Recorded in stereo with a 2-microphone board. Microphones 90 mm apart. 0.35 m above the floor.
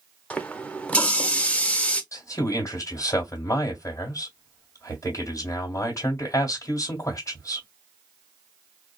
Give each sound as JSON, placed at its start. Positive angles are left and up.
{"t": 0.3, "sound": "a running tap", "side_deg": 15, "distance_m": 0.6}
{"t": 2.1, "sound": "a man speaking", "side_deg": 35, "distance_m": 1.6}